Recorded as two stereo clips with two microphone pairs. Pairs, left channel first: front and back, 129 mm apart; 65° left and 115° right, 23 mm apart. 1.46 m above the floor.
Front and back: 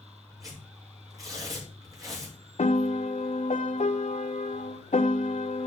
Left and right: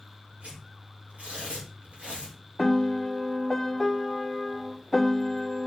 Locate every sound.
0.4 s tearing paper: 115° right, 5.5 m
2.6 s a piano: 20° right, 0.9 m